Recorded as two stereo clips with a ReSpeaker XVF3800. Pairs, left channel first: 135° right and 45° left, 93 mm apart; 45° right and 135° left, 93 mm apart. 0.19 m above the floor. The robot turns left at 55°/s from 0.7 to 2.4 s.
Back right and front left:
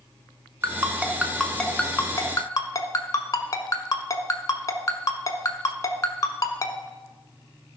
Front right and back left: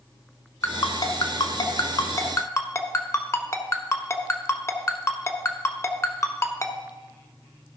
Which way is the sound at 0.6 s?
Straight ahead.